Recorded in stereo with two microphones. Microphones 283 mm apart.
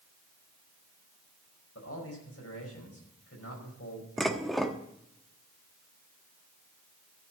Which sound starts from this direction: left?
A man speaking, at 1.8 s.